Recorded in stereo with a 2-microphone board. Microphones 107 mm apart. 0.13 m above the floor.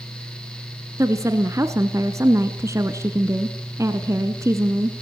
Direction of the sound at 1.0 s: 25° right (ahead or behind).